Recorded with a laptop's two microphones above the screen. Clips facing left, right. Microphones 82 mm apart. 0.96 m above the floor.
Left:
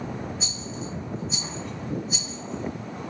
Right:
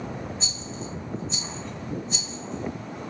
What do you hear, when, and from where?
0.4 s a rattle: centre (ahead or behind), 0.9 m